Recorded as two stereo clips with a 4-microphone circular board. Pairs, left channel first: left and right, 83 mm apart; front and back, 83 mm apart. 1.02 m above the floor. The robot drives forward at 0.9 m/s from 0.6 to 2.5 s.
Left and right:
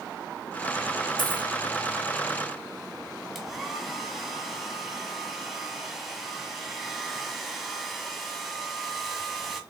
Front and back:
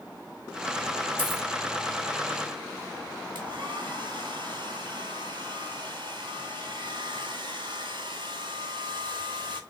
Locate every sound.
1.2 s a dropped coin: 70° left, 4 m; by 1.5 s 75° left, 3.5 m
3.4 s a hair dryer: straight behind, 2 m